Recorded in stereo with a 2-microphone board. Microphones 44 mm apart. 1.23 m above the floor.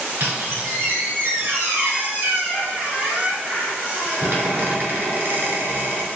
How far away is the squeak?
About 1.6 m.